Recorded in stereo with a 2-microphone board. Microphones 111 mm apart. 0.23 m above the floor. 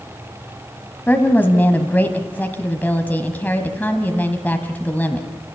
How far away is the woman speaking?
About 1.4 m.